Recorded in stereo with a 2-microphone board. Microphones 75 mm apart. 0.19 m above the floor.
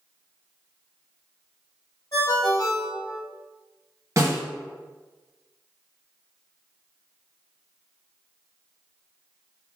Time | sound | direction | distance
2.1 | a ringtone | 50° left (ahead or behind) | 1.9 m
4.2 | a snare drum | 45° right (ahead or behind) | 1.4 m